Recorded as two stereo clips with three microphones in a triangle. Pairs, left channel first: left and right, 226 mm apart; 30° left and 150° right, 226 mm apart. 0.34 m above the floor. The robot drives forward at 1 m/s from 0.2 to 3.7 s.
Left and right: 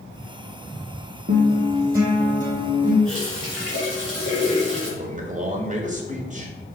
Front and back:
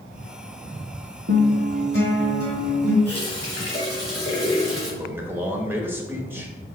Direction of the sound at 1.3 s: 130° right.